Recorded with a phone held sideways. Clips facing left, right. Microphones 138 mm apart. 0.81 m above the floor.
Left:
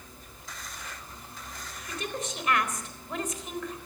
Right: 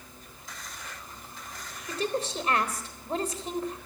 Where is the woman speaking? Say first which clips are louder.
Right 6 dB; 30° right (ahead or behind), 3.5 m.